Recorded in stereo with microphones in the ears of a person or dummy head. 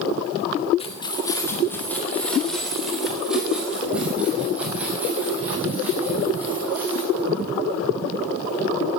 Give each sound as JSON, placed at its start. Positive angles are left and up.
{"t": 0.8, "sound": "keys jangling", "side_deg": 30, "distance_m": 1.4}